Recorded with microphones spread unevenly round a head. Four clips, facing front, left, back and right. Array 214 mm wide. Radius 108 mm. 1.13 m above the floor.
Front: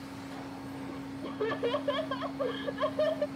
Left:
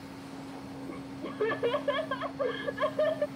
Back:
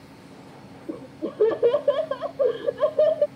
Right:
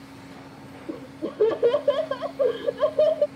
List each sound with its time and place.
0.9 s laughter: 145° right